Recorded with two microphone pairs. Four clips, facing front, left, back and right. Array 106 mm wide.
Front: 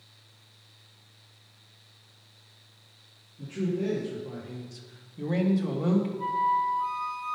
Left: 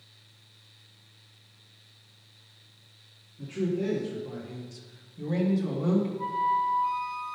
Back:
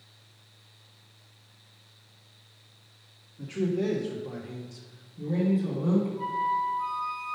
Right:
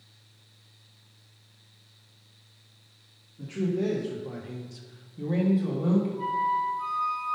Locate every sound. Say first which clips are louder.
3.4 s a man speaking: right 1 dB, back 2 dB; 155° right, 1.3 m; by 6.1 s 10° left, 1.5 m
6.2 s a flute: even, front 2 dB; 105° right, 2 m